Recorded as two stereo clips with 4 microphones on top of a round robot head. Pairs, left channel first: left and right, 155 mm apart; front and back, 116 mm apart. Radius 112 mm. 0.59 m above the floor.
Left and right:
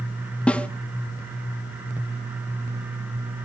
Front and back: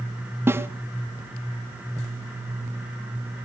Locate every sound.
0.5 s a snare drum: 160° left, 0.6 m